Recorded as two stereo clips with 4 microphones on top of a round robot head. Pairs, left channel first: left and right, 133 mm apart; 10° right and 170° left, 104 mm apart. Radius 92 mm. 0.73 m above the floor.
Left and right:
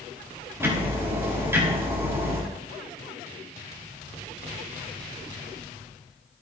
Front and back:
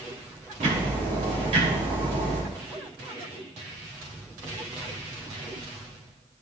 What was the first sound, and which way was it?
Ticking, 160° right.